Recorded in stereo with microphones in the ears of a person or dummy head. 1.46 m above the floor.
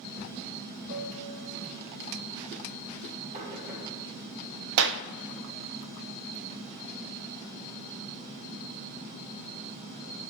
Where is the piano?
60° right (ahead or behind), 2.5 m.